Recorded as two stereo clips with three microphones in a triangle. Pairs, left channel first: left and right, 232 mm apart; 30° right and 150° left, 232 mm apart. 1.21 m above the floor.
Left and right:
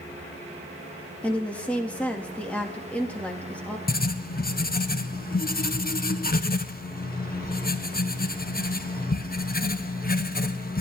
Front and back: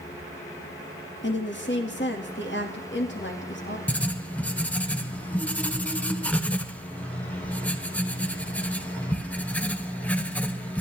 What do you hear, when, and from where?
1.2 s a woman speaking: 5° left, 2 m
3.9 s writing: 50° left, 0.7 m